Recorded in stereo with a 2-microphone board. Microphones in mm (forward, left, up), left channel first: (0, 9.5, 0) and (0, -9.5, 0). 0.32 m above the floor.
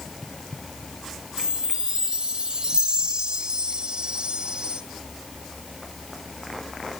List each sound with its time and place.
1.4 s a chime: 45° right (ahead or behind), 1.5 m